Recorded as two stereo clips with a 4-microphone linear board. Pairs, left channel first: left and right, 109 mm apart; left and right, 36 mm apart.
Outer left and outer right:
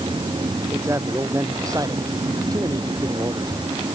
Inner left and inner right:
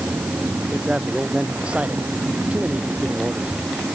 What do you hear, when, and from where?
0.7 s a man speaking: 25° right (ahead or behind); by 3.5 s 40° right (ahead or behind)